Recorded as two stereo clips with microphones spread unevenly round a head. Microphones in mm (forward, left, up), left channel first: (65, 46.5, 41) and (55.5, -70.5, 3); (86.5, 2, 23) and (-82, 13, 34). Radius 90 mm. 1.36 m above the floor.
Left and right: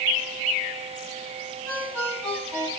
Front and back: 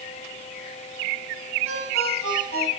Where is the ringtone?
Straight behind, 9 m.